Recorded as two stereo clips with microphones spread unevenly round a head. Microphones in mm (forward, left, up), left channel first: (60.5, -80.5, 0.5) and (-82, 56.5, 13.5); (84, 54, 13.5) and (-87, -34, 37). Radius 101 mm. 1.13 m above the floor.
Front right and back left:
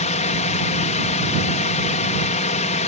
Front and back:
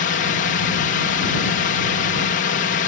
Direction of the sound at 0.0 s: 5° left.